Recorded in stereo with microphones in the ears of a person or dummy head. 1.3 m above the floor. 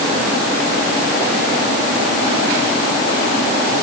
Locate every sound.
Only background noise.